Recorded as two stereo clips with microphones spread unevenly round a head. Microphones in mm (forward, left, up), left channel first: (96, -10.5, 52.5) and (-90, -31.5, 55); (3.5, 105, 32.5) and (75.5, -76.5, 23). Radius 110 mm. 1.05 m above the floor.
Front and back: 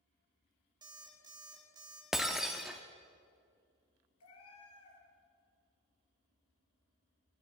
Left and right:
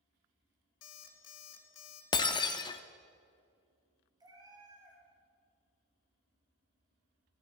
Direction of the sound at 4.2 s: 5° left.